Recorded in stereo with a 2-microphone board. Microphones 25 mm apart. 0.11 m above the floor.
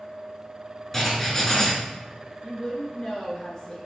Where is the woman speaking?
30° left (ahead or behind), 1.2 m.